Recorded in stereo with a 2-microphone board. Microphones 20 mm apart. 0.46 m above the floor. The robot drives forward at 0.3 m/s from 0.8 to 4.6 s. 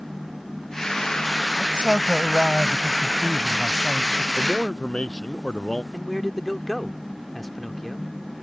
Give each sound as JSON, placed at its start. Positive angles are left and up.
{"t": 1.6, "sound": "a man speaking", "side_deg": -60}
{"t": 4.4, "sound": "a man speaking", "side_deg": 40}
{"t": 5.9, "sound": "a man speaking", "side_deg": 5}